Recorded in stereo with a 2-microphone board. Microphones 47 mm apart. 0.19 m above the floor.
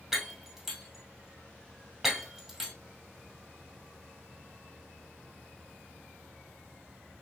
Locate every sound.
0.1 s breaking glass: 10° right (ahead or behind), 1.8 m